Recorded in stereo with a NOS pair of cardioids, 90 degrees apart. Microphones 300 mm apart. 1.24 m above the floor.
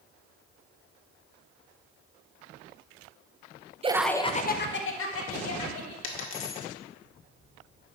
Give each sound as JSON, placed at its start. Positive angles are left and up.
{"t": 3.8, "sound": "laughter", "azimuth_deg": -20, "distance_m": 0.9}
{"t": 6.0, "sound": "a dropped coin", "azimuth_deg": 45, "distance_m": 1.7}